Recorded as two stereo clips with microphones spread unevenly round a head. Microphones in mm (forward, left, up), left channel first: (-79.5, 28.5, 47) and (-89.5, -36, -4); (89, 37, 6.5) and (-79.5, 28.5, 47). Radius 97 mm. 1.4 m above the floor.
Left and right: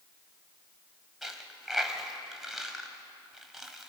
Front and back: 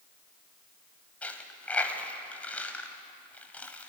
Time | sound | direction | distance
1.2 | a dropped coin | 100° left | 1.4 m